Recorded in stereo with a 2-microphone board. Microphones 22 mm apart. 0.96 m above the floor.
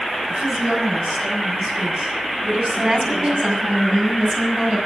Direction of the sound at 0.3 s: 65° right (ahead or behind).